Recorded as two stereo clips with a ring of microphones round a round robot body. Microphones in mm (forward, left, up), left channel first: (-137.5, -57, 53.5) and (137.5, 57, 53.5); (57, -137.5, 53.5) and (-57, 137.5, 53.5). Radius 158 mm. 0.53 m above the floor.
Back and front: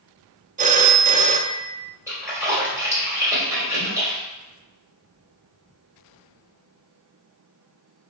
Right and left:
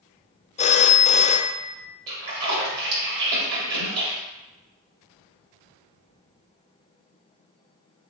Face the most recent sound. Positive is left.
turn(degrees=105)